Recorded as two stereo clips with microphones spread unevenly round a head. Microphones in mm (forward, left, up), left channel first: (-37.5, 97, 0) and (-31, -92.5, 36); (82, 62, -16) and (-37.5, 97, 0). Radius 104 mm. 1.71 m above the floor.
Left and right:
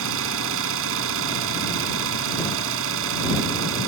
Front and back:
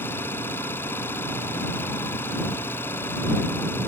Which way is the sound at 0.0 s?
95° right.